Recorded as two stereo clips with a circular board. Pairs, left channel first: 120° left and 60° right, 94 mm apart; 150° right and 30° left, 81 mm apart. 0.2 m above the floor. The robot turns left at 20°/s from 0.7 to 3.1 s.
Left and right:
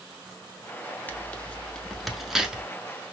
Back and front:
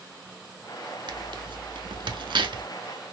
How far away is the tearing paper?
About 0.7 m.